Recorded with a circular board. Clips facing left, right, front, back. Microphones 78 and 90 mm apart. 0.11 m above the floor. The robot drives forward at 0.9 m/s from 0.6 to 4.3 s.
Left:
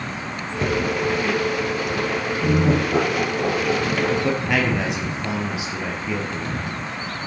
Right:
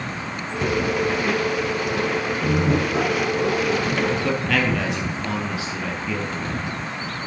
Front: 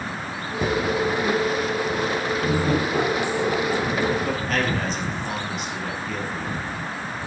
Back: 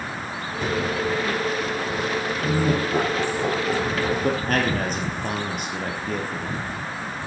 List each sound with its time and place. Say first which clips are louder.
0.6 s a cupboard door: even, front 2 dB; 40° left, 2.5 m; by 0.8 s 45° left, 2.5 m
2.4 s laughter: left 3 dB, even; 95° left, 1.9 m; by 4.4 s 140° left, 2.5 m
4.2 s a man speaking: left 1 dB, back 2 dB; 155° left, 2 m